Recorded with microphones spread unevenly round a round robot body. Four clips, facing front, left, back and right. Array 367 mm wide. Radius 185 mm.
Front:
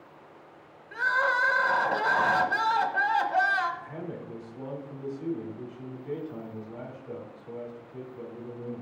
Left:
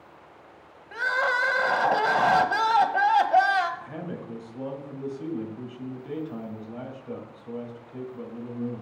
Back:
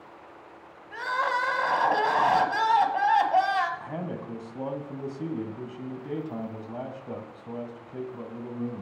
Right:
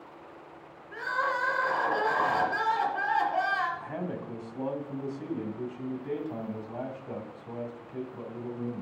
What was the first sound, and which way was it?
Crying, 95° left.